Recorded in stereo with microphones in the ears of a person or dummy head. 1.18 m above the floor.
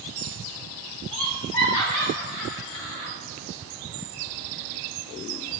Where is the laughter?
10° left (ahead or behind), 1.2 m; by 3.1 s 30° left (ahead or behind), 2 m.